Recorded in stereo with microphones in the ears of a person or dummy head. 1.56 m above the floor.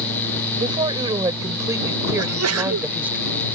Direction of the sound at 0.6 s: 25° right (ahead or behind).